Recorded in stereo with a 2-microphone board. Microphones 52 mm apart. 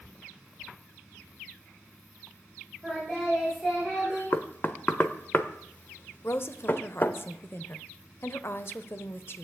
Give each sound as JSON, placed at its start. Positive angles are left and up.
{"t": 2.8, "sound": "singing", "side_deg": 10, "distance_m": 8.5}
{"t": 4.3, "sound": "knocking", "side_deg": 40, "distance_m": 1.0}
{"t": 6.2, "sound": "a woman speaking", "side_deg": 50, "distance_m": 1.1}